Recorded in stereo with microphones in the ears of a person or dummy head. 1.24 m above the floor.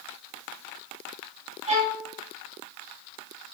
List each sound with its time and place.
1.7 s a violin: 35° right (ahead or behind), 0.6 m